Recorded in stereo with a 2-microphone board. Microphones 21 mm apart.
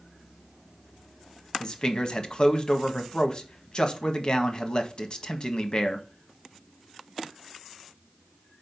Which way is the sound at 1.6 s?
35° left (ahead or behind).